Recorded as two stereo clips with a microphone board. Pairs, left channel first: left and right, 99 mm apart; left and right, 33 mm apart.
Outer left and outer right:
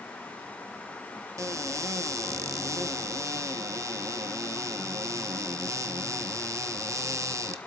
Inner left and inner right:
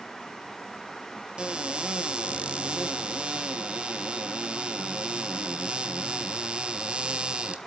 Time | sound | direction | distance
1.4 | a cupboard door | 30° right (ahead or behind) | 1.1 m